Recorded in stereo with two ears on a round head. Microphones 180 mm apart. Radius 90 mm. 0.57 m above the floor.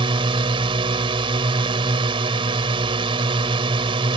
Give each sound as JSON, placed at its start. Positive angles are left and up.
{"t": 0.0, "sound": "a drone", "side_deg": -25}